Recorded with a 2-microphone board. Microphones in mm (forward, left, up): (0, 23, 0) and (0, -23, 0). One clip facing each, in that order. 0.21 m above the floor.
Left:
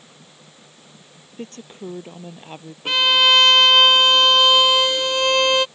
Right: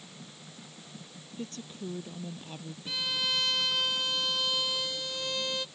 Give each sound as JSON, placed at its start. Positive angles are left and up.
{"t": 1.4, "sound": "a woman speaking", "side_deg": 40}
{"t": 2.9, "sound": "a violin", "side_deg": 65}